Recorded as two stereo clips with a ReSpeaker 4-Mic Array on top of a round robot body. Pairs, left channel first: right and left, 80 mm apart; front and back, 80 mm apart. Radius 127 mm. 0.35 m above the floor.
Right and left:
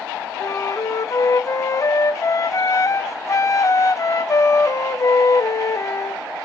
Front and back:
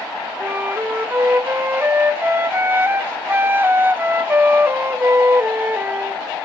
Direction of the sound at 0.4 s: 125° right.